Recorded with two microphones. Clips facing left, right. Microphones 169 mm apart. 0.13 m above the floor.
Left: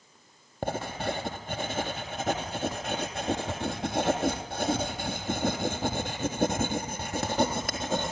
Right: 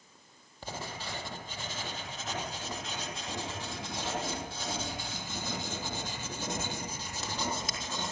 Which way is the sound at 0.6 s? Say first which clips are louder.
Left 10 dB; 60° left (ahead or behind).